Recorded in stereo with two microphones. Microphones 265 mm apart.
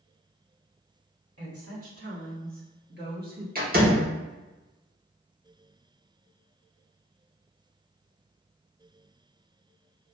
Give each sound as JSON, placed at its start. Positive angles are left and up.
{"t": 1.4, "sound": "a woman speaking", "side_deg": -60, "distance_m": 2.0}
{"t": 3.5, "sound": "a door slam", "side_deg": -35, "distance_m": 1.3}